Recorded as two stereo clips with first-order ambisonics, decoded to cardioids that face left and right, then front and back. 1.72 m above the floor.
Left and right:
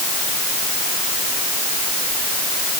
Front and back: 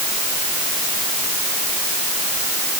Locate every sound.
Only background noise.